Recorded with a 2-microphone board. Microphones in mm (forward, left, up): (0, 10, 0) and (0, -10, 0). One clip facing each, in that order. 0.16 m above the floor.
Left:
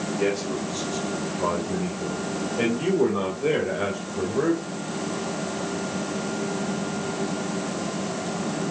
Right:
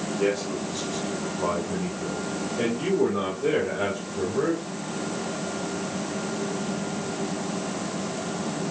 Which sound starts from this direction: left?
A man speaking, at 0.2 s.